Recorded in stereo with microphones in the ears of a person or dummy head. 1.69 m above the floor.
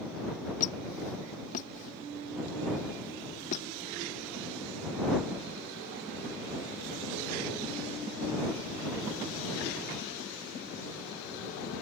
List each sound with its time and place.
0.6 s a squeak: 45° left (ahead or behind)